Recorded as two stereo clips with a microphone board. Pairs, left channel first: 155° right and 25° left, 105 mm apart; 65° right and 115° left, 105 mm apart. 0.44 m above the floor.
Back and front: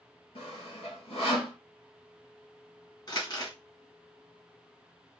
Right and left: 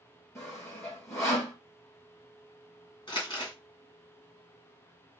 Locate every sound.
0.3 s sawing: 130° right, 3 m
3.1 s crumpling: 110° right, 2 m